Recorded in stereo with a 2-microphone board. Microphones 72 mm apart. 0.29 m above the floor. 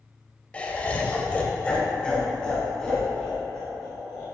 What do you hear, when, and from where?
0.5 s laughter: 15° left (ahead or behind), 1.0 m; by 4.2 s 5° left (ahead or behind), 3 m